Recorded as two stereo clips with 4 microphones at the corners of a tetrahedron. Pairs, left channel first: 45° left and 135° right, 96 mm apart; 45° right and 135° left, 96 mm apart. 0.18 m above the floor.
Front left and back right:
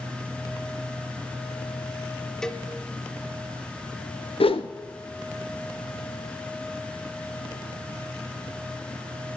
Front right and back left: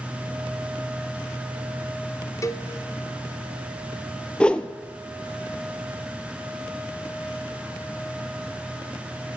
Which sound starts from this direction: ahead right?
A cowbell, at 2.4 s.